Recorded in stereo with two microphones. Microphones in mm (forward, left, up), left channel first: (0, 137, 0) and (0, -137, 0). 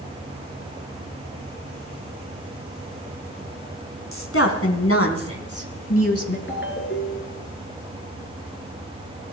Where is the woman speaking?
55° left (ahead or behind), 3 m; by 6.4 s 60° left (ahead or behind), 2 m.